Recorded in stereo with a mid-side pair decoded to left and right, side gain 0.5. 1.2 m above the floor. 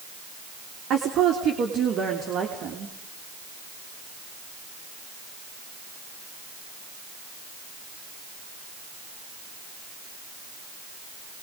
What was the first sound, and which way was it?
A woman speaking, 60° right.